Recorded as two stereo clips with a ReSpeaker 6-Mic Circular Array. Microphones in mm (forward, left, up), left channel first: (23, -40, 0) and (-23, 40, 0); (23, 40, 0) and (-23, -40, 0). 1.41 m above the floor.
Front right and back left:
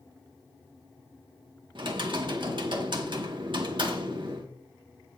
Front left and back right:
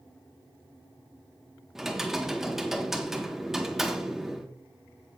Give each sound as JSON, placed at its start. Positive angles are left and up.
{"t": 1.8, "sound": "typing on a keyboard", "azimuth_deg": 155, "distance_m": 1.6}